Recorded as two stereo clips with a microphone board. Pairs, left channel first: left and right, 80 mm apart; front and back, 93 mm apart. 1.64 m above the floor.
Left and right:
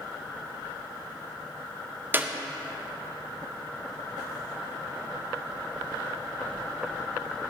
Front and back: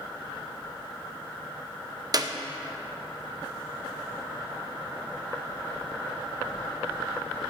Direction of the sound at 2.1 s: 150° right.